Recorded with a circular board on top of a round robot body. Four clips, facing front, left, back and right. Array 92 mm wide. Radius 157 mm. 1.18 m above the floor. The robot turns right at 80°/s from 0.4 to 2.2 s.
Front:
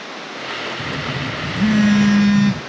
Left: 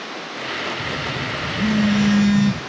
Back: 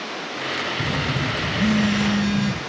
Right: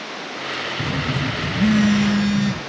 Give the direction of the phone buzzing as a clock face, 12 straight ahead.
3 o'clock.